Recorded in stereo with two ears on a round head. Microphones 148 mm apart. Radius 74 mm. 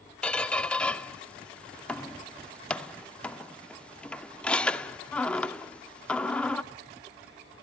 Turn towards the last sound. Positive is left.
turn(degrees=5)  # may be behind; listen again after turning